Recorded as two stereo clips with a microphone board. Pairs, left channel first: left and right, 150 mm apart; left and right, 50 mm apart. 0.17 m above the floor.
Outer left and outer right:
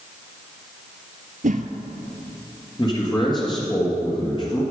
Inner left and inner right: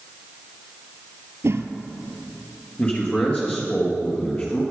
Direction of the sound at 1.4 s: 65° right (ahead or behind).